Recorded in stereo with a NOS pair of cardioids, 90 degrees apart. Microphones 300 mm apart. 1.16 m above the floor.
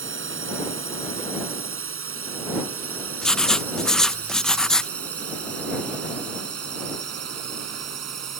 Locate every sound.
0.0 s a drone: 40° right; by 8.4 s 60° right
3.2 s writing: straight ahead